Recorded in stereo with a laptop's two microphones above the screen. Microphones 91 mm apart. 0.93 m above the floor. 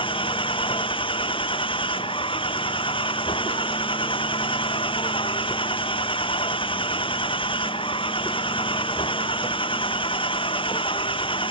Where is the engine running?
60° left (ahead or behind).